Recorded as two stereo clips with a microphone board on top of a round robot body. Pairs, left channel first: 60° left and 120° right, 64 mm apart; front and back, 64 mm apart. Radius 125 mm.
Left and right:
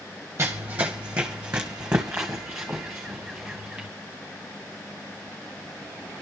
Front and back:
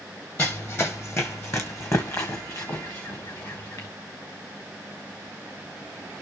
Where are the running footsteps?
60° right, 0.9 m; by 3.9 s 35° right, 3 m.